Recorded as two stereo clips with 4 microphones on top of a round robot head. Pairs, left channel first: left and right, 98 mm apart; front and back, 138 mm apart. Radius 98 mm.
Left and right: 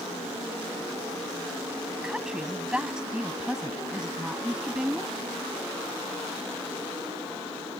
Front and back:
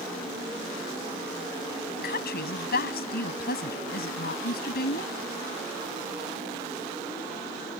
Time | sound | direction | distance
2.0 | a woman speaking | 5° right | ?